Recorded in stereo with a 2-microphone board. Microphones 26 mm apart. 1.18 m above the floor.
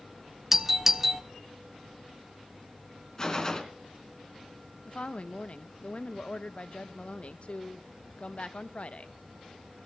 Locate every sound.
0.5 s a doorbell: 10° right (ahead or behind), 1.0 m
3.2 s a gunshot: 20° left (ahead or behind), 2 m
4.8 s a woman speaking: 55° left (ahead or behind), 1.0 m